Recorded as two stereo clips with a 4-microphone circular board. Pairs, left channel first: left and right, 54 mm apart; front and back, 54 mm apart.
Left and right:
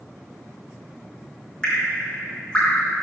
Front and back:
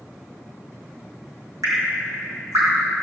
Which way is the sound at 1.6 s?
165° left.